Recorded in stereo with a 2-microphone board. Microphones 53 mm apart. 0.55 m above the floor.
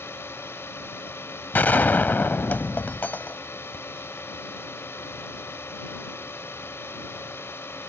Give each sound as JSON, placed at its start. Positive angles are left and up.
{"t": 0.0, "sound": "a drone", "side_deg": 50}
{"t": 1.5, "sound": "a gunshot", "side_deg": 35}